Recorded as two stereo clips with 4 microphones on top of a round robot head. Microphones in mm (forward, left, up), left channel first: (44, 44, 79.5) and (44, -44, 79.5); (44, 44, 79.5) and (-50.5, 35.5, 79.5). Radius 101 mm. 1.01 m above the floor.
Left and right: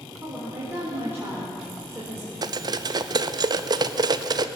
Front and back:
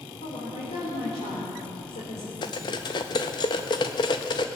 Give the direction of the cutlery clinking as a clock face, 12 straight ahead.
2 o'clock.